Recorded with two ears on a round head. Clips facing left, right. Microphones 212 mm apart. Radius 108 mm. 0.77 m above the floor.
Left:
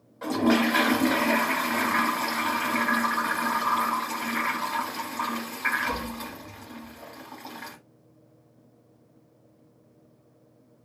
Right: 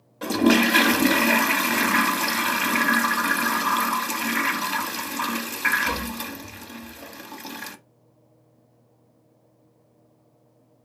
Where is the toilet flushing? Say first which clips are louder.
Right 3 dB; 40° right (ahead or behind), 0.7 m.